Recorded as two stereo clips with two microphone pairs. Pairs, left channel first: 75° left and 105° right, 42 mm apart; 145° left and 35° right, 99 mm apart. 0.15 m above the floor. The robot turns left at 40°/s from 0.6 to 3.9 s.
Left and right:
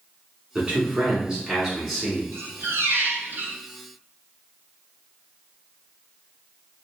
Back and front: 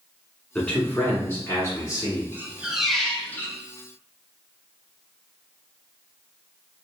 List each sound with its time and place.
0.6 s a man speaking: 140° right, 1.3 m; by 2.2 s 155° left, 1.3 m
2.3 s a squeak: 100° right, 0.6 m; by 3.6 s 150° right, 0.6 m